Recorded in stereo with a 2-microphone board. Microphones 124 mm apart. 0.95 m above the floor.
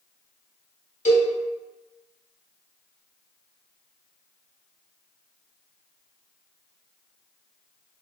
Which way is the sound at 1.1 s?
75° left (ahead or behind).